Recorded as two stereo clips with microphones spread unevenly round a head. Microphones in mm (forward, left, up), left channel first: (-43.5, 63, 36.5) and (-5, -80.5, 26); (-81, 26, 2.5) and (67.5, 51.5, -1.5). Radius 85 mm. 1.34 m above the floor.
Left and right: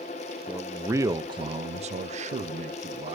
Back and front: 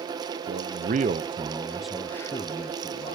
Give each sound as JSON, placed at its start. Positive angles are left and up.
{"t": 0.5, "sound": "a man speaking", "azimuth_deg": 5, "distance_m": 0.8}